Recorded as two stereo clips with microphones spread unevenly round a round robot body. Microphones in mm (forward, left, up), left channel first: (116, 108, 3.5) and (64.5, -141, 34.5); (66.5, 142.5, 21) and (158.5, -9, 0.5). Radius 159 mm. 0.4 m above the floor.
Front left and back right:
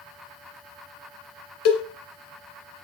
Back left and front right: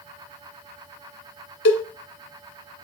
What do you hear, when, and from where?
1.6 s a cowbell: 125° left, 1.7 m